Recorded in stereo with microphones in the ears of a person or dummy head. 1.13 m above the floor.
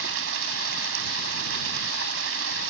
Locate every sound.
0.0 s running water: 75° right (ahead or behind)